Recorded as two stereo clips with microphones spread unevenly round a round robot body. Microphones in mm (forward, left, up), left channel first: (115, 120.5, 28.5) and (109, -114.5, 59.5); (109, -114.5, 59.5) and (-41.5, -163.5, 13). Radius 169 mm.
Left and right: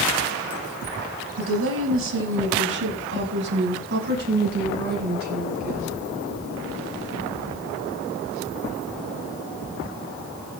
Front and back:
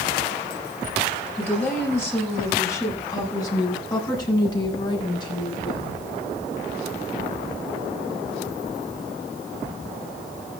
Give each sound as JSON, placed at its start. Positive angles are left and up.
{"t": 1.4, "sound": "a woman speaking", "azimuth_deg": -65, "distance_m": 5.5}